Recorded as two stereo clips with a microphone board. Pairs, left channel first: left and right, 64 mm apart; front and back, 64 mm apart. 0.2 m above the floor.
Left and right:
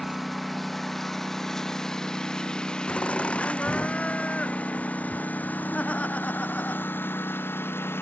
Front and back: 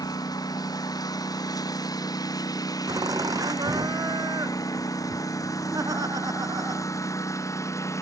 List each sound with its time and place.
0.0 s a lawn mower: straight ahead; by 8.0 s 40° left
2.9 s laughter: 160° left